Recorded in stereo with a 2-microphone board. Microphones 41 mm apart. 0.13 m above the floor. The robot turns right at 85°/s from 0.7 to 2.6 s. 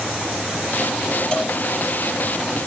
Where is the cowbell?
25° left (ahead or behind), 3 m; by 1.6 s 5° left (ahead or behind), 3 m.